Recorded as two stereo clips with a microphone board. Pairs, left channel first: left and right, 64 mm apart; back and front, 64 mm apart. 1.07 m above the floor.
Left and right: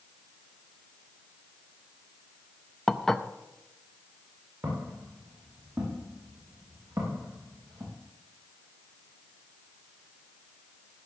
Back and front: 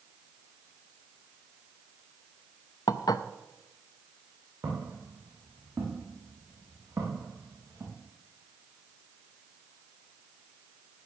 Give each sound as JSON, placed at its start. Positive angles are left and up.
{"t": 2.9, "sound": "dishes clattering", "azimuth_deg": 175, "distance_m": 0.5}
{"t": 4.6, "sound": "footsteps", "azimuth_deg": -40, "distance_m": 5.5}